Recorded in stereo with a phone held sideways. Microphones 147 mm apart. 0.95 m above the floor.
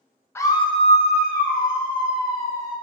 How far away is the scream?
About 0.6 m.